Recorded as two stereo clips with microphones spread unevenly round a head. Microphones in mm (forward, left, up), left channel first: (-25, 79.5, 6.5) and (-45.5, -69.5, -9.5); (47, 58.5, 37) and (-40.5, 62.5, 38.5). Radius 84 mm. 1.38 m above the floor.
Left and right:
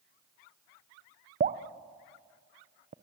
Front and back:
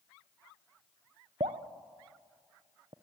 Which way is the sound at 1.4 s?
135° right.